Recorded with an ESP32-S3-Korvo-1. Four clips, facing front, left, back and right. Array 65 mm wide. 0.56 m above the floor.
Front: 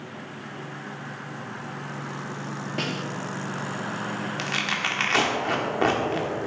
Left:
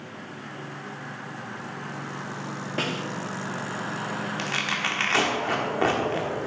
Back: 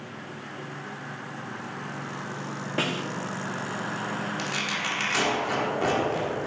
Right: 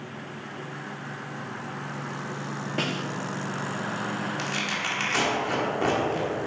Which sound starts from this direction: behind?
A snare drum, at 2.8 s.